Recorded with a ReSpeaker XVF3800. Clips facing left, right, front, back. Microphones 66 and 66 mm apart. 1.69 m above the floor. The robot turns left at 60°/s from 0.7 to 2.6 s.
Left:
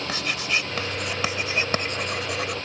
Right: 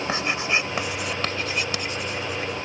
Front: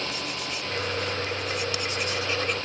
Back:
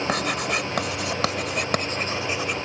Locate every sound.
0.1 s writing: 155° right; by 2.5 s 95° left